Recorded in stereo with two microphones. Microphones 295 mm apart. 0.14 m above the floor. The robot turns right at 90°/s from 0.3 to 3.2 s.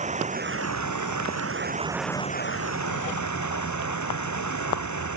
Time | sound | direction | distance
0.0 | running water | 155° right | ?